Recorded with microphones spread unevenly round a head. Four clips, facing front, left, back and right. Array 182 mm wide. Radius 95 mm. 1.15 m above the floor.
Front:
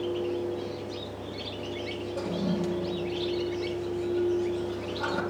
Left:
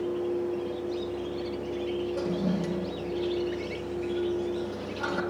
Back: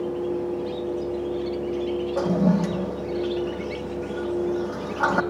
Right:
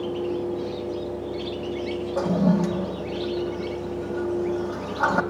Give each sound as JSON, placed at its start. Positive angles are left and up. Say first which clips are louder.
{"t": 2.2, "sound": "a toilet flushing", "louder": "right 7 dB, back 8 dB", "azimuth_deg": -140, "distance_m": 0.8}